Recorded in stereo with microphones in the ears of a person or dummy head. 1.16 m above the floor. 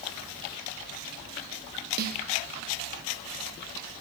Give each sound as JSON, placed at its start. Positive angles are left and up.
{"t": 2.0, "sound": "a snare drum", "side_deg": -50, "distance_m": 0.6}